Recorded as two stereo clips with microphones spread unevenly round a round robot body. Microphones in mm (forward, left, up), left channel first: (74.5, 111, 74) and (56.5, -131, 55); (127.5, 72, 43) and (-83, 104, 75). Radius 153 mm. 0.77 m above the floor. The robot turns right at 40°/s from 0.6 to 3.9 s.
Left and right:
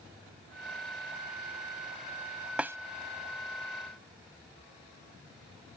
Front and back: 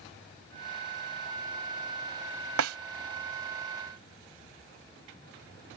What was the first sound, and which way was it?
A snare drum, 175° left.